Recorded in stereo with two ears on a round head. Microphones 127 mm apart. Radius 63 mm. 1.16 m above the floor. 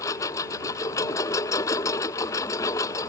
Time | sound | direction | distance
0.0 | a lawn mower | 25° left (ahead or behind) | ?